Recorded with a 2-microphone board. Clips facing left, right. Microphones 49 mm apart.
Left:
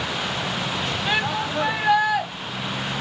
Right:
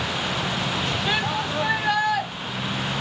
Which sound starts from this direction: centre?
A shout, at 1.1 s.